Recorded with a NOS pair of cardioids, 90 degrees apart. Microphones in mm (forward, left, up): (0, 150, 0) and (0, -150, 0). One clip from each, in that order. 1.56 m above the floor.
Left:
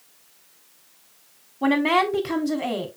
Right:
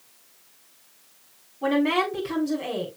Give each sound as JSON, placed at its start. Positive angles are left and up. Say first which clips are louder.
{"t": 1.6, "sound": "a woman speaking", "louder": "left 3 dB", "azimuth_deg": 55, "distance_m": 3.5}